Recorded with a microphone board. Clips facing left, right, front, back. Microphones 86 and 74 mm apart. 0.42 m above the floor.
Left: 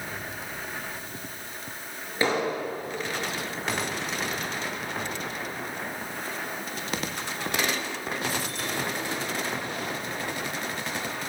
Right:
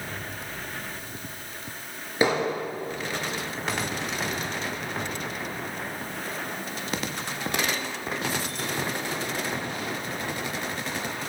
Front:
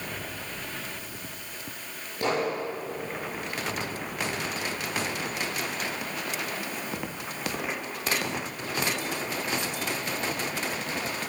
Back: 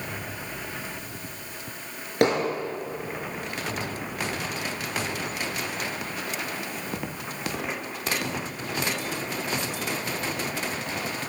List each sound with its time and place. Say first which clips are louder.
2.2 s hammering: right 2 dB, back 5 dB; 165° right, 4.5 m